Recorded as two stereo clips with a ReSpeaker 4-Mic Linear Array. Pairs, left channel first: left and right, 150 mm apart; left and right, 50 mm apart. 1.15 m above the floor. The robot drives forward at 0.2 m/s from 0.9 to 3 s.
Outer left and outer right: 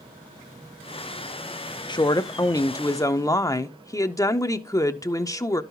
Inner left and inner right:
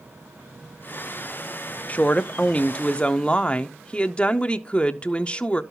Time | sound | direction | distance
1.9 | a woman speaking | 30° left (ahead or behind) | 0.5 m